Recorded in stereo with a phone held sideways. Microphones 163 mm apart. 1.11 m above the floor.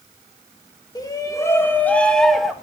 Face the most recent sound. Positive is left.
turn(degrees=0)  # may be behind; listen again after turning